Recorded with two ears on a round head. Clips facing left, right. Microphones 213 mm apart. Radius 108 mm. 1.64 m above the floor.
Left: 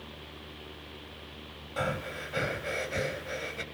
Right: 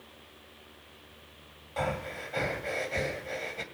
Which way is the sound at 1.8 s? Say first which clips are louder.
Even; 15° left (ahead or behind).